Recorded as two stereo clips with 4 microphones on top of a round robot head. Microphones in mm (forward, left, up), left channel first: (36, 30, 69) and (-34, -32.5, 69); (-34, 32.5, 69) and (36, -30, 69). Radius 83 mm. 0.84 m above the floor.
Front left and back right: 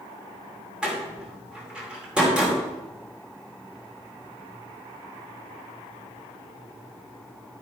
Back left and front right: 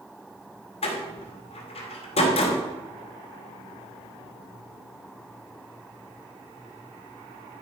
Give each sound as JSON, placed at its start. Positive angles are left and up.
{"t": 0.8, "sound": "a door slam", "azimuth_deg": 140, "distance_m": 2.5}